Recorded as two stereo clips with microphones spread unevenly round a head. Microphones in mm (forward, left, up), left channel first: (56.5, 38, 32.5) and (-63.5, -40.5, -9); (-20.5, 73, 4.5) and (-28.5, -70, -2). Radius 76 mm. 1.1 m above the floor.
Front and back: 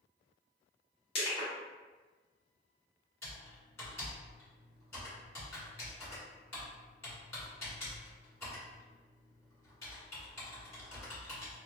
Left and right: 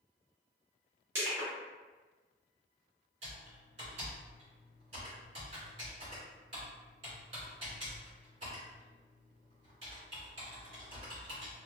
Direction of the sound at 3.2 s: 40° right.